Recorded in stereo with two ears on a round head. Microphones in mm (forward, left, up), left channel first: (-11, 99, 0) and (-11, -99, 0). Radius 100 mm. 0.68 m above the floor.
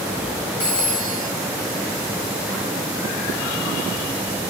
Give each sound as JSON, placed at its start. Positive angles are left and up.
{"t": 0.6, "sound": "a phone ringing", "side_deg": 5, "distance_m": 3.0}